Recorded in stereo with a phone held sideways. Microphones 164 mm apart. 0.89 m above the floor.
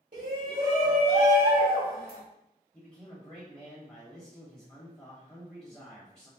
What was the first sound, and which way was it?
A shout, 65° right (ahead or behind).